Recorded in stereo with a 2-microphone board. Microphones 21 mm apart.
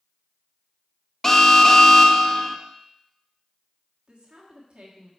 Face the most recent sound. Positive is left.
turn(degrees=-45)  # may be behind; listen again after turning